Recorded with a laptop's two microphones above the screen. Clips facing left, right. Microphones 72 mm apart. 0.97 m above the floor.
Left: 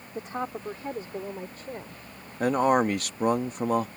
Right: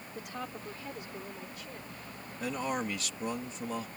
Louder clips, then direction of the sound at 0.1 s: Left 9 dB; 30° left (ahead or behind).